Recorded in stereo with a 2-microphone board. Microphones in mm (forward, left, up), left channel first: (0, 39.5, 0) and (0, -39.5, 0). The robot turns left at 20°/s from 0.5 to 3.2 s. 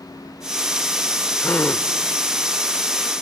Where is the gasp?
20° left (ahead or behind), 0.6 m; by 1.9 s 30° left (ahead or behind), 0.6 m.